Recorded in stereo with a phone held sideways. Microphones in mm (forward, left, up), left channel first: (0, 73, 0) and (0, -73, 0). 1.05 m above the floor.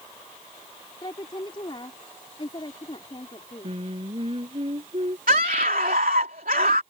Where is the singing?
40° right (ahead or behind).